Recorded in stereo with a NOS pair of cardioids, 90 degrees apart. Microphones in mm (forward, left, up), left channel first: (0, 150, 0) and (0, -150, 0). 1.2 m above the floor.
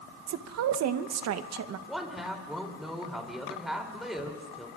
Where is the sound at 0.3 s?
60° right, 0.9 m.